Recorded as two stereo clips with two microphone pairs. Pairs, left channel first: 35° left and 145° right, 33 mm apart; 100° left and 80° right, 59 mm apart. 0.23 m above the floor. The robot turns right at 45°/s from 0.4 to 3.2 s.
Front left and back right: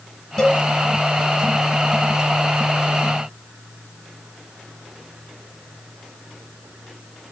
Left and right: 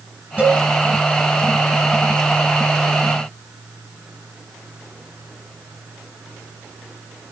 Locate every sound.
0.4 s a cowbell: 20° right, 1.7 m; by 0.6 s 10° right, 1.7 m